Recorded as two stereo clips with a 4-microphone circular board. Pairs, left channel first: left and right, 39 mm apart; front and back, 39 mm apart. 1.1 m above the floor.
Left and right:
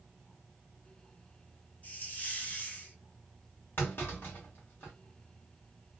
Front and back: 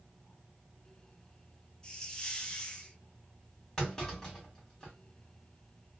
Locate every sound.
1.8 s a hiss: 65° left, 0.6 m
3.8 s a clunk: 75° left, 2 m